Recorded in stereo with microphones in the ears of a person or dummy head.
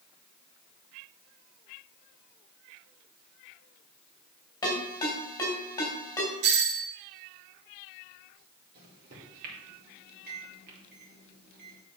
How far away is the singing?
No singing in this recording.